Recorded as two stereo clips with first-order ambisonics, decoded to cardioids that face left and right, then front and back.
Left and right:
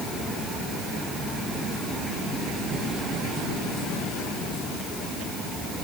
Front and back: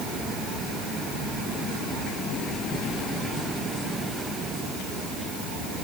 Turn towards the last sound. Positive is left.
No sound to turn to.